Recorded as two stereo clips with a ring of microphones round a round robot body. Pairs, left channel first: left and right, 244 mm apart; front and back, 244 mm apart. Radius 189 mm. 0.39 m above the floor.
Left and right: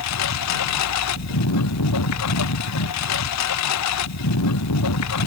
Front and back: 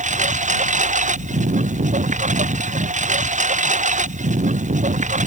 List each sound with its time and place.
0.0 s a lawn mower: 120° left